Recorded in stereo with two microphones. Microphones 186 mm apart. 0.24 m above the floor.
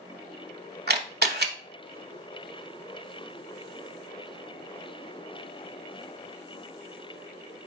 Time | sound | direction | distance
0.9 | a camera shutter | 60° right (ahead or behind) | 0.7 m